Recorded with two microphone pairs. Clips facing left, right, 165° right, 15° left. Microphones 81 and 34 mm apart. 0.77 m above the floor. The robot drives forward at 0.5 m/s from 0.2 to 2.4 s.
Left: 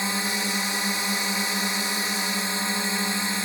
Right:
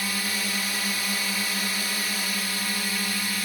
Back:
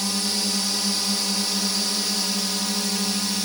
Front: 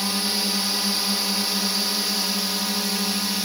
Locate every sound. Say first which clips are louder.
0.0 s a drone: left 3 dB, front 1 dB; 65° left; by 3.4 s 80° left